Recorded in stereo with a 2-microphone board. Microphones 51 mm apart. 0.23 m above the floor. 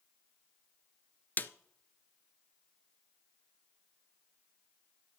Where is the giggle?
I don't hear a giggle.